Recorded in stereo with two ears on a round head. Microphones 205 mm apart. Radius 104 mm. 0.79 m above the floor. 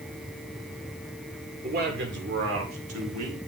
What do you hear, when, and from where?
1.6 s a man speaking: 40° right (ahead or behind), 2.5 m; by 3.4 s 80° right, 2.5 m